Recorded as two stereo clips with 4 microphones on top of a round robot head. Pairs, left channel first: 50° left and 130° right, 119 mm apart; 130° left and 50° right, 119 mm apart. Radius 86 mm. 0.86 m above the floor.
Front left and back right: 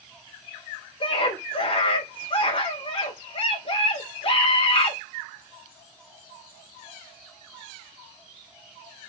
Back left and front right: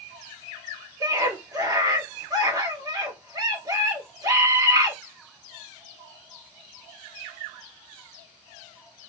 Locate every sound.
1.0 s a scream: 5° left, 4 m